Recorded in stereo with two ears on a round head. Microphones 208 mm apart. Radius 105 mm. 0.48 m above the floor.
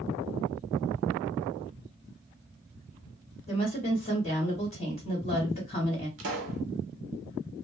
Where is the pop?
50° right (ahead or behind), 0.8 m.